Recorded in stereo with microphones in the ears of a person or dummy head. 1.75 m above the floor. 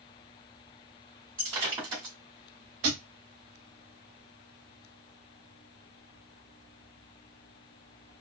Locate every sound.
1.4 s breaking glass: 20° right (ahead or behind), 2 m
2.8 s a thud: 40° right (ahead or behind), 1.5 m